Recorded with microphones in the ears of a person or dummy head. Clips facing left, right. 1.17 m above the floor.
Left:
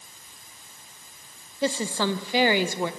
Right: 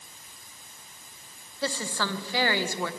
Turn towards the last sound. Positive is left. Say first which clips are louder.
# left 6 dB
turn(degrees=20)  # may be behind; listen again after turning